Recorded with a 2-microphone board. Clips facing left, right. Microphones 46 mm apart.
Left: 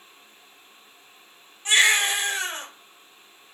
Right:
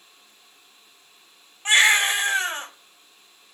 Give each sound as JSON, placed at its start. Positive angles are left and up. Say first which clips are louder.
{"t": 1.6, "sound": "a baby crying", "louder": "right 2 dB", "side_deg": -40, "distance_m": 0.9}